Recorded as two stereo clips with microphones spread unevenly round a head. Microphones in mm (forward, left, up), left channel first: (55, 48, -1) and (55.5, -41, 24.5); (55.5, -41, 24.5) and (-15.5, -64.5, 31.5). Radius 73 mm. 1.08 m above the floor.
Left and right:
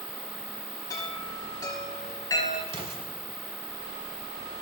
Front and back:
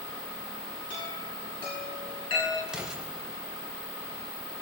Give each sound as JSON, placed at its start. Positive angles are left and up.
{"t": 0.9, "sound": "a chime", "azimuth_deg": 40, "distance_m": 10.0}
{"t": 2.7, "sound": "an explosion", "azimuth_deg": -85, "distance_m": 3.5}